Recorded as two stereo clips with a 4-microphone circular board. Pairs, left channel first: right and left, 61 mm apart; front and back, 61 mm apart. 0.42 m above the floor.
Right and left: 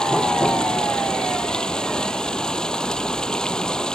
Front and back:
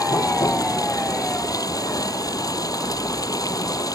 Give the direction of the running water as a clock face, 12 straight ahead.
12 o'clock.